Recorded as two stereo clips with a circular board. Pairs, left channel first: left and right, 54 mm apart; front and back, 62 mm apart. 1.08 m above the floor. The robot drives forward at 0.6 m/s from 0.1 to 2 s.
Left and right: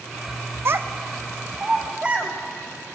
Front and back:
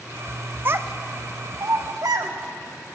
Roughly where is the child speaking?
Behind right.